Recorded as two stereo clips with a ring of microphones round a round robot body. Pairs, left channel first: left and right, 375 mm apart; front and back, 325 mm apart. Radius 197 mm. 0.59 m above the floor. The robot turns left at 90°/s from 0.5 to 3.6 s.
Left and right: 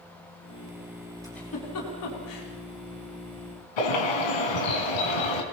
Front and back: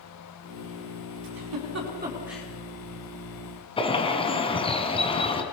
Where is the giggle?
170° right, 5.5 m; by 2.5 s 75° left, 5.5 m.